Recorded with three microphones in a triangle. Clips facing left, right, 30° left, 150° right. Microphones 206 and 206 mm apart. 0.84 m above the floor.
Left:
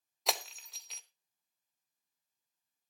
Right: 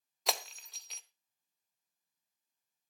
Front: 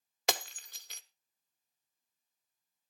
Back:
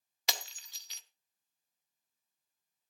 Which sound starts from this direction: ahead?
Breaking glass, at 0.3 s.